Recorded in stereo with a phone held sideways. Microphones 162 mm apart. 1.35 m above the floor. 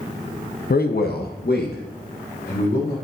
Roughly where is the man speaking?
Left.